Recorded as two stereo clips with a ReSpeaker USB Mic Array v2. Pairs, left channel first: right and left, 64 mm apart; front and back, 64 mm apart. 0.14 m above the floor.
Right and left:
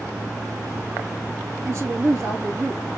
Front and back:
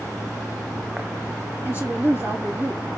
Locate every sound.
1.6 s a woman speaking: 125° left, 4 m